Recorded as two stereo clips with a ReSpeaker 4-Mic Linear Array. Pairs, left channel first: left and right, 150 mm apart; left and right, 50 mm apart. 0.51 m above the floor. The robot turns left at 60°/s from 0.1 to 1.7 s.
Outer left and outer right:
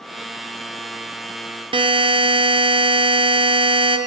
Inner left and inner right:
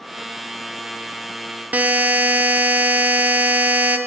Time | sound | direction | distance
1.7 | a buzzer | 35° right (ahead or behind) | 0.5 m